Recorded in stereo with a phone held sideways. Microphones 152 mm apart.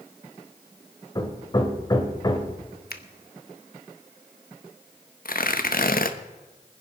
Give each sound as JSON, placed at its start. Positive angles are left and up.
{"t": 1.1, "sound": "hammering", "side_deg": 25, "distance_m": 1.6}
{"t": 2.9, "sound": "a finger snap", "side_deg": 80, "distance_m": 1.1}
{"t": 5.2, "sound": "tearing paper", "side_deg": 65, "distance_m": 1.0}